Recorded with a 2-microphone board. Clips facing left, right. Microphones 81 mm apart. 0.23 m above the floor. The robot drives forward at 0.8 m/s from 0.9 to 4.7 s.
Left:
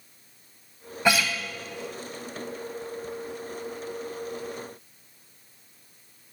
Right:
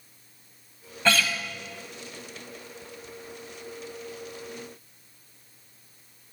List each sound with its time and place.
1.1 s a guitar: 15° left (ahead or behind), 0.9 m